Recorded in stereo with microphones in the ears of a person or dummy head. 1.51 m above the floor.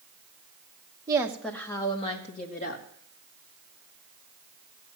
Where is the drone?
No drone in this recording.